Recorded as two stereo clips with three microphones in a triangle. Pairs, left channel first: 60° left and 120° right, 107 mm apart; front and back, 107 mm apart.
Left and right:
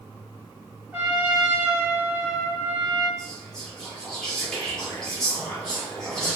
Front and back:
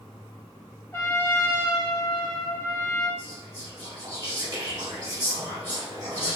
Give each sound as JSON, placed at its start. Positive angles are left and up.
{"t": 0.9, "sound": "a trumpet", "azimuth_deg": -50, "distance_m": 1.5}
{"t": 3.2, "sound": "whispering", "azimuth_deg": 140, "distance_m": 1.9}